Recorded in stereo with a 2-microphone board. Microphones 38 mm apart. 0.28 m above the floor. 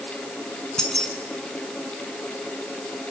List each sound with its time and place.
0.8 s keys jangling: 15° left (ahead or behind), 1.7 m